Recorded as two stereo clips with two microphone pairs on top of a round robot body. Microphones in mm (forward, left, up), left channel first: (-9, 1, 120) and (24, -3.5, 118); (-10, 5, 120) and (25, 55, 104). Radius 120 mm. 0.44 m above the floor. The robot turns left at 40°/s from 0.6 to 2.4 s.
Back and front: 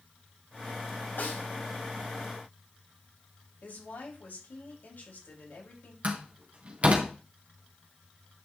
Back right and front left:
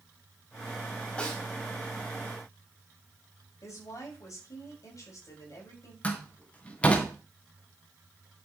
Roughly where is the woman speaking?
Behind.